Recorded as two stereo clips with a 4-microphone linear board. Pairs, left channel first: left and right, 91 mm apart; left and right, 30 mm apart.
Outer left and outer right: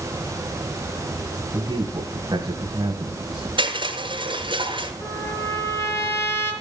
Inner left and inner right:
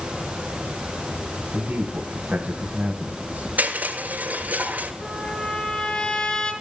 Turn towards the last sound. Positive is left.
turn(degrees=30)  # may be behind; listen again after turning